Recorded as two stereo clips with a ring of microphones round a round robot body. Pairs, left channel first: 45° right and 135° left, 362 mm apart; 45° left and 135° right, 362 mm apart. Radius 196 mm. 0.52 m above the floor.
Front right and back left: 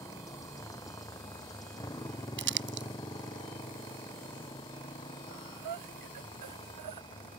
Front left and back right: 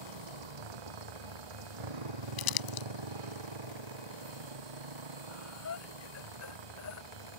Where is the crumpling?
75° left.